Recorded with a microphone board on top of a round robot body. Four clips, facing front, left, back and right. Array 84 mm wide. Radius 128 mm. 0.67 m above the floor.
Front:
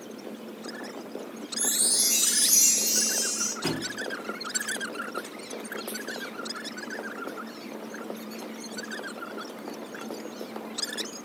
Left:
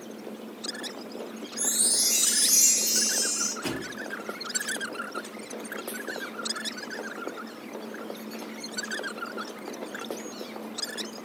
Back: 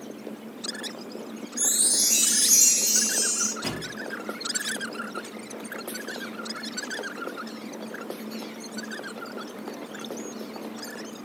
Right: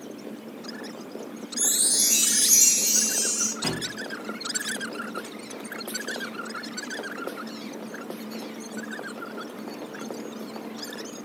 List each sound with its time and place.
1.6 s a chime: 115° right, 1.5 m
3.6 s a thud: 90° right, 2.5 m